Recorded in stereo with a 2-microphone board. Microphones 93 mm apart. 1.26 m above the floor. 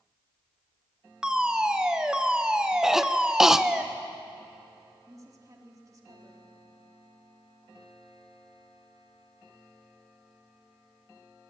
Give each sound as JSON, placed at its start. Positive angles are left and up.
{"t": 1.2, "sound": "a fire alarm", "side_deg": -10, "distance_m": 1.4}
{"t": 2.8, "sound": "a cough", "side_deg": -5, "distance_m": 1.0}
{"t": 5.1, "sound": "a woman speaking", "side_deg": -35, "distance_m": 3.0}